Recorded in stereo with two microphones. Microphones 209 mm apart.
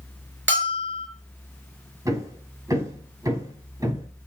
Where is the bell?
60° right (ahead or behind), 4 m.